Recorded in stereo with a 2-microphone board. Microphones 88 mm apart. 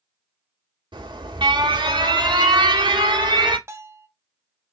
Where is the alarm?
60° right (ahead or behind), 1.7 m.